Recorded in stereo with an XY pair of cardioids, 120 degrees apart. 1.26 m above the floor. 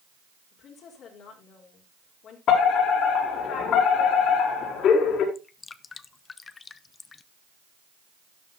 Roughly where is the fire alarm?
Left.